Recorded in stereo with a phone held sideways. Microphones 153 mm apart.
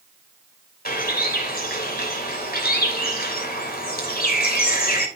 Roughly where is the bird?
Left.